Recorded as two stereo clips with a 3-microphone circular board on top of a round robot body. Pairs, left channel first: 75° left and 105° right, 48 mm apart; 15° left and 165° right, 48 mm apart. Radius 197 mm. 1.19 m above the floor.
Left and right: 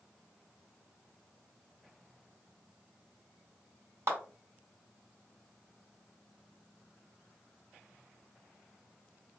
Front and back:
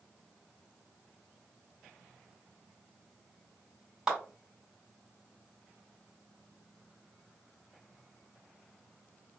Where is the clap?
85° right, 2 m.